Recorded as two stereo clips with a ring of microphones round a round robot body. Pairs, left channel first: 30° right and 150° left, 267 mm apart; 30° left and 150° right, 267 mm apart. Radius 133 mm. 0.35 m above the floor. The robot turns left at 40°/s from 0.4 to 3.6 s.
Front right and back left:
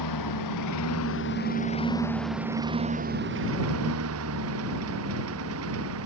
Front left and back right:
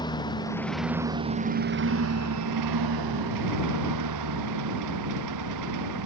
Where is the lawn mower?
45° right; by 6.1 s 170° right.